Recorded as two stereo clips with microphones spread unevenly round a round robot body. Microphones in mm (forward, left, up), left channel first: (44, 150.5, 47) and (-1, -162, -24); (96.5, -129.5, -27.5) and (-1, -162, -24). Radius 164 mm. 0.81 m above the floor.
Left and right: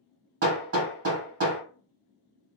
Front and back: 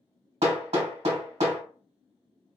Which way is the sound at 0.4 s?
150° right.